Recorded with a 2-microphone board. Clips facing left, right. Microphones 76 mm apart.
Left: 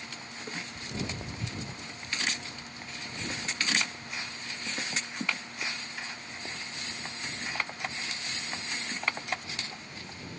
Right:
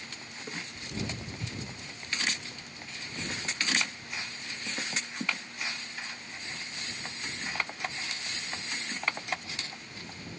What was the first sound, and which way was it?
Footsteps, 25° left (ahead or behind).